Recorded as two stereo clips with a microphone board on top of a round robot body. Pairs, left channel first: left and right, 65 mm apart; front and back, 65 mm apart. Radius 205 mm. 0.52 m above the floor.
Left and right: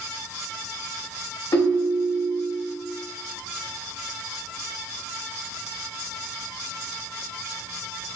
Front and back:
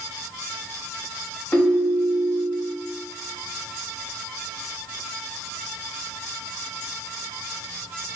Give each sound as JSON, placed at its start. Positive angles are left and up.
{"t": 1.5, "sound": "a ringtone", "azimuth_deg": 65, "distance_m": 1.4}